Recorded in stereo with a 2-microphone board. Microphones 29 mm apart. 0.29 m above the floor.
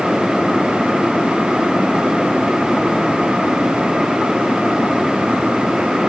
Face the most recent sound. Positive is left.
No sound to turn to.